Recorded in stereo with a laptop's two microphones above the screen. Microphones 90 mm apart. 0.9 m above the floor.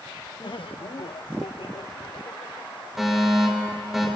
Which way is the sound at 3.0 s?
5° right (ahead or behind).